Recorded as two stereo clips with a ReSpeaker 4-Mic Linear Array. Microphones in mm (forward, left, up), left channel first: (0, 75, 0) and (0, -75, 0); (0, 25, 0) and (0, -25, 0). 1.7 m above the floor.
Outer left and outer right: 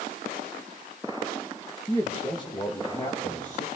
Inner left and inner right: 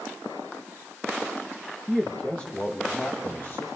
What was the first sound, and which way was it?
A man speaking, 20° left (ahead or behind).